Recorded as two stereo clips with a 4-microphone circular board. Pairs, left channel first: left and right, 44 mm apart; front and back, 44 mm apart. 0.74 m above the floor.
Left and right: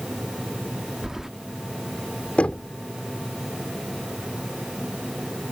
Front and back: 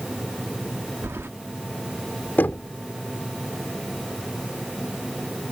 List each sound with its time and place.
1.0 s keys jangling: 170° right
2.4 s knocking: 35° left